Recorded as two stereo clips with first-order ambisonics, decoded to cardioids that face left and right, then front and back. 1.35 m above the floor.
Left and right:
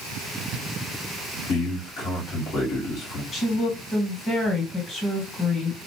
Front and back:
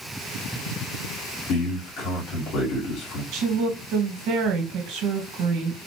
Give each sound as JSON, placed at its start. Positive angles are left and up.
{"t": 1.5, "sound": "a man speaking", "azimuth_deg": 40, "distance_m": 2.5}
{"t": 3.3, "sound": "a woman speaking", "azimuth_deg": 160, "distance_m": 1.7}